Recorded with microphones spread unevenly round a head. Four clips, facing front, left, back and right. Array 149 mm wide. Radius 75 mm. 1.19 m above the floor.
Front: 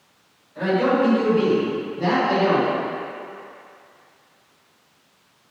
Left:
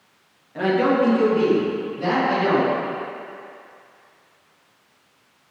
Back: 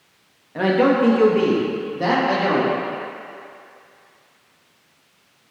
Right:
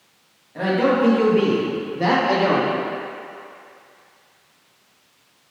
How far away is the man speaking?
About 1.7 m.